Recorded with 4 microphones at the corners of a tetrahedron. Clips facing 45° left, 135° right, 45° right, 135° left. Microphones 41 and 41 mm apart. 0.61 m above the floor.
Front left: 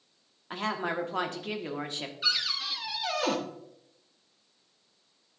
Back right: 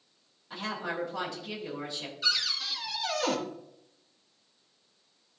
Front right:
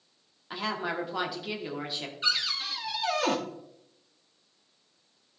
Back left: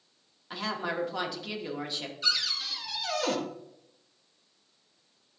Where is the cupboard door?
20° right, 1.0 m.